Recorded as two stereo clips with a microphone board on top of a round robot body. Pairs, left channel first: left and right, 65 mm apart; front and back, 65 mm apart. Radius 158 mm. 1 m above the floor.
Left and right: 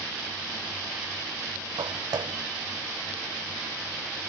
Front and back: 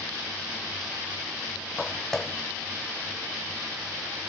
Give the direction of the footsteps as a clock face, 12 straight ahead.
3 o'clock.